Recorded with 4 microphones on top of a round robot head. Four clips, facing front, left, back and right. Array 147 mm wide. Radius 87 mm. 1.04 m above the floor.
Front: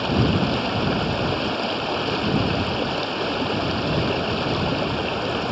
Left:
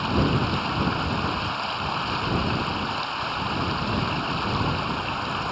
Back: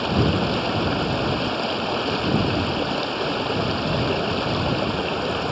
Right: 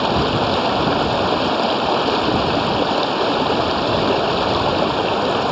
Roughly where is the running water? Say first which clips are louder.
Right 6 dB, even; right.